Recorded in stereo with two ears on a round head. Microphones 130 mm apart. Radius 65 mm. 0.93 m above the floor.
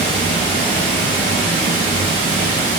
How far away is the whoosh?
No whoosh in this recording.